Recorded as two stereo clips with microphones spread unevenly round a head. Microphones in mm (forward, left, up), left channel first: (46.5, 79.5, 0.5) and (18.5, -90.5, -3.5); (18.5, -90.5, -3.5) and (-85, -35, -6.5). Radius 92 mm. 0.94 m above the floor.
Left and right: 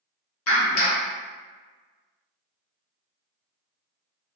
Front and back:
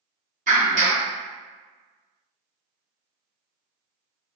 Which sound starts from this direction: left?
A clap, at 0.5 s.